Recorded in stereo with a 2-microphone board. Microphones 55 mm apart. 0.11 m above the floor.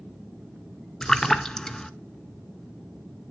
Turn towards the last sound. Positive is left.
turn(degrees=10)  # may be behind; listen again after turning